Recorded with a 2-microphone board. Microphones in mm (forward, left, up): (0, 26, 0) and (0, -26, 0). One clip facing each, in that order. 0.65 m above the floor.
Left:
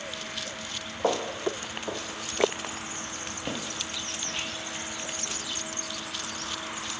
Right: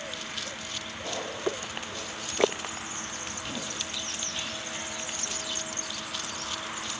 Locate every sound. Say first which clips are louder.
1.0 s footsteps: left 5 dB; 75° left (ahead or behind), 2.5 m; by 5.4 s 60° left (ahead or behind), 7.5 m